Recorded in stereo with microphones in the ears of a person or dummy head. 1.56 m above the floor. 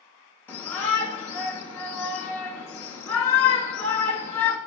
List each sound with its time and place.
0.5 s a shout: 10° left (ahead or behind), 1.1 m